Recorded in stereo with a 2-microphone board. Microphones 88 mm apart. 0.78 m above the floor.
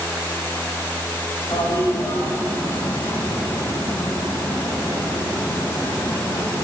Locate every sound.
1.5 s a toilet flushing: 40° left (ahead or behind), 1.5 m